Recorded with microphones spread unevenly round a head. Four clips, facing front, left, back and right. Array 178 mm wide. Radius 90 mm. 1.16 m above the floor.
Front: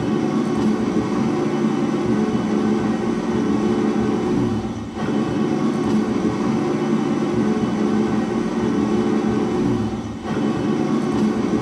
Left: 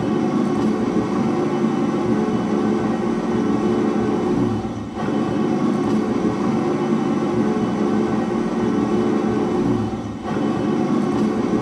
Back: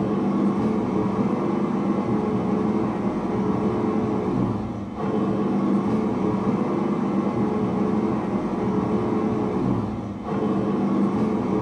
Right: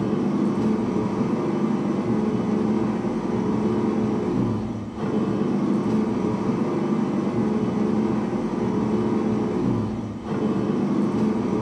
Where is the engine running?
45° left, 1.4 m.